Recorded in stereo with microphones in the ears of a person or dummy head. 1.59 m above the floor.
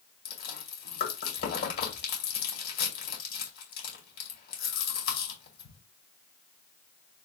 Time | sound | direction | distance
0.2 | chewing | 70° left (ahead or behind) | 2 m